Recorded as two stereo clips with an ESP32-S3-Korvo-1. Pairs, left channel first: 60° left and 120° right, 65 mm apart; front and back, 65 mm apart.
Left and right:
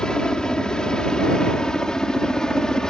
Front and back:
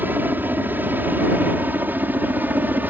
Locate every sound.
0.0 s a helicopter: 135° left